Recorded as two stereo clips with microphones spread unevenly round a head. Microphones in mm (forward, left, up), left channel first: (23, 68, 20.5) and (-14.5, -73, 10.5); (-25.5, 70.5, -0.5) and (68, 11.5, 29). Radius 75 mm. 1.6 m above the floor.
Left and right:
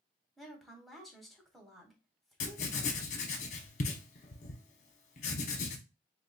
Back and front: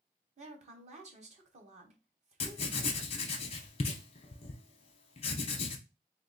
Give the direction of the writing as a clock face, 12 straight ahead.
8 o'clock.